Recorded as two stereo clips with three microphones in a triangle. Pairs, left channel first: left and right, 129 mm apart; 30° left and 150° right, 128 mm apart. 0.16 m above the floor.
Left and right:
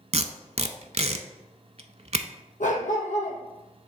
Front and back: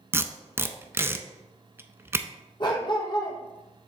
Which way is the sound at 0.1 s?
80° right.